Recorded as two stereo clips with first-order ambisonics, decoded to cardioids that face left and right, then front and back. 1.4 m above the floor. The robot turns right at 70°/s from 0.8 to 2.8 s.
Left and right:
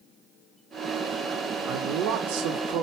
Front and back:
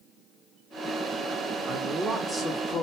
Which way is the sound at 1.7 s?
135° right.